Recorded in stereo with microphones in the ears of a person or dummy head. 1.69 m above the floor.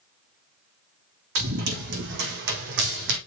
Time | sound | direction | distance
1.4 | running footsteps | 70° right (ahead or behind) | 4.5 m